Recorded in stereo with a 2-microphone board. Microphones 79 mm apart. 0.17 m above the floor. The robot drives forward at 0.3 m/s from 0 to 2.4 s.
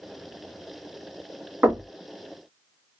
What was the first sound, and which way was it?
Knocking, 25° right (ahead or behind).